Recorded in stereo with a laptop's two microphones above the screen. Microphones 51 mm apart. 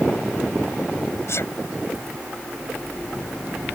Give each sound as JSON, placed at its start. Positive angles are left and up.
{"t": 1.3, "sound": "a sneeze", "side_deg": 60}